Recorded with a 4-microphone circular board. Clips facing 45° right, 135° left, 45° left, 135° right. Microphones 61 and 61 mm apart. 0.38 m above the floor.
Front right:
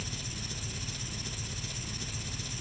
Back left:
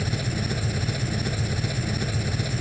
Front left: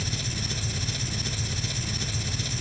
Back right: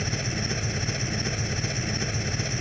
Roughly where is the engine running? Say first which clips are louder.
Back left 13 dB, back right 4 dB; behind.